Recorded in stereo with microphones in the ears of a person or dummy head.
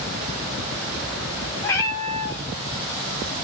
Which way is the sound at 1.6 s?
10° left (ahead or behind).